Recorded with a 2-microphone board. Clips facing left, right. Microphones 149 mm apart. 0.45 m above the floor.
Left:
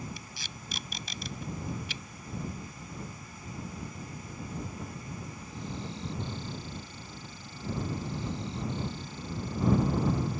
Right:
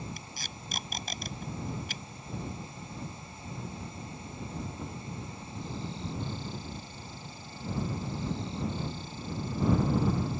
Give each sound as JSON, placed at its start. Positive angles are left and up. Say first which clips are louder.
{"t": 0.2, "sound": "tape being pulled", "louder": "right 1 dB", "side_deg": -50}